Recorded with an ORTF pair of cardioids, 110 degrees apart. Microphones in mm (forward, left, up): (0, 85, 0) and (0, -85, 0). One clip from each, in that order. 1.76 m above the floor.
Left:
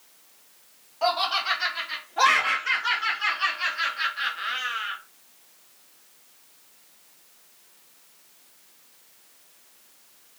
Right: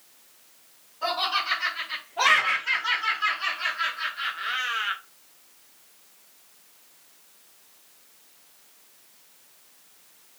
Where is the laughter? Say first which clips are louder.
Left 2 dB; 65° left, 2.0 m; by 5.0 s 55° right, 0.5 m.